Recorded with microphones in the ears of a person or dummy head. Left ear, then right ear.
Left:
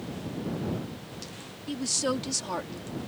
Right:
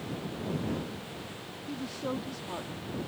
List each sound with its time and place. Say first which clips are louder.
1.7 s a woman speaking: left 8 dB; 75° left (ahead or behind); by 2.9 s 80° left